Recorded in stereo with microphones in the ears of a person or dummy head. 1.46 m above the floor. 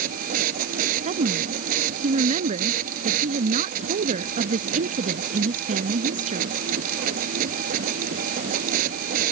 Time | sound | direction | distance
0.0 | a machine running | 50° right (ahead or behind) | ?
1.1 | a woman speaking | 35° right (ahead or behind) | ?